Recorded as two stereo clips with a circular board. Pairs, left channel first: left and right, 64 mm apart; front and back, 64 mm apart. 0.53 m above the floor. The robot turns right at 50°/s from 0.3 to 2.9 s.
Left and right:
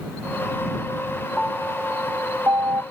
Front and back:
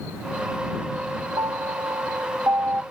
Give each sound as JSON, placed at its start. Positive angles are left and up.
{"t": 1.4, "sound": "a piano", "azimuth_deg": 175}